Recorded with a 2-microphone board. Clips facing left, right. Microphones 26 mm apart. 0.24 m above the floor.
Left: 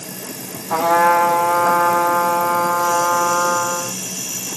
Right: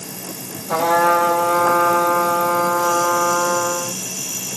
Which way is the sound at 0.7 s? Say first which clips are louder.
Left 1 dB; 25° right (ahead or behind).